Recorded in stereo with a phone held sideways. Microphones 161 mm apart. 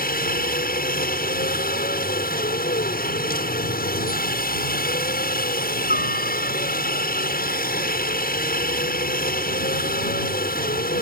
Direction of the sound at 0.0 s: 65° left (ahead or behind).